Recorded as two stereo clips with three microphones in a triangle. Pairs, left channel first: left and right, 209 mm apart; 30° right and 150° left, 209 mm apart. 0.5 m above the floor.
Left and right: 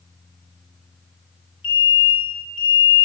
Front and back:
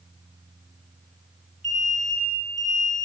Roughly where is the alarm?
Left.